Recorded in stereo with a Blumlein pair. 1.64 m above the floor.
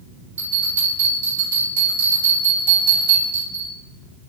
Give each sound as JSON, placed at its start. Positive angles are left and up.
{"t": 0.4, "sound": "a bell", "azimuth_deg": -65, "distance_m": 1.6}